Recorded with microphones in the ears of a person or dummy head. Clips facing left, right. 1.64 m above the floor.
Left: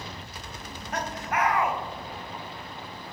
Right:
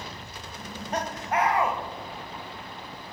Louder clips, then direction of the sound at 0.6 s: Right 3 dB; 25° right (ahead or behind).